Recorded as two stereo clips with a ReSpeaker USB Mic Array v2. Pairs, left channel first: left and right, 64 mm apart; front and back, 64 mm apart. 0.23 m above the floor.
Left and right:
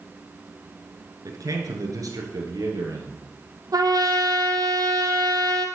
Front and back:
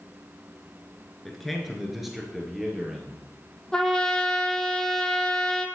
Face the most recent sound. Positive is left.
turn(degrees=-80)